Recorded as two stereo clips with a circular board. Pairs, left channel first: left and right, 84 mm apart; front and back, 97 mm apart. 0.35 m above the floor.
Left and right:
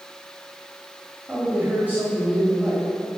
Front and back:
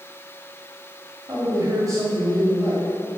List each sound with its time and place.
1.3 s a man speaking: 150° right, 1.9 m